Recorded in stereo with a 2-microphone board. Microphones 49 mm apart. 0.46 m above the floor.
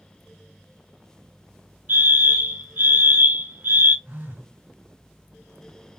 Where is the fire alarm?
45° right (ahead or behind), 2 m.